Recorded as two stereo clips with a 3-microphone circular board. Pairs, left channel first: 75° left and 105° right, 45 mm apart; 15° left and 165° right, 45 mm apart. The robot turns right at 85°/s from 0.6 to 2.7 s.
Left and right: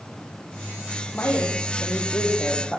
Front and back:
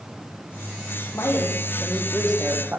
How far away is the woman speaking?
About 8.5 m.